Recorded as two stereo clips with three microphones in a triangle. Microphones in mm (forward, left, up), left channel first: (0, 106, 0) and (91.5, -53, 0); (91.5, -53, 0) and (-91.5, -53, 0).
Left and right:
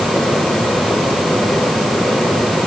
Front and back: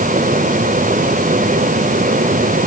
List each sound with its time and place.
Only background noise.